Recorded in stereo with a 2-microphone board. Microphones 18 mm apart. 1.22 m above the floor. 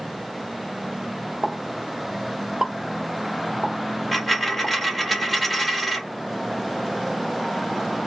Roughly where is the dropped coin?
Centre.